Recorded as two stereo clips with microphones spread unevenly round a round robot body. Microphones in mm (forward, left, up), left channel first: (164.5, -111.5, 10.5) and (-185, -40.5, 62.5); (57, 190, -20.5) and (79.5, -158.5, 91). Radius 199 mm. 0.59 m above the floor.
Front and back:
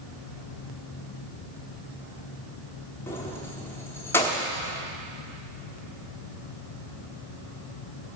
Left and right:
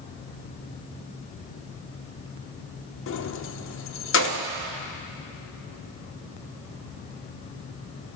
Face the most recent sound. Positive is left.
turn(degrees=65)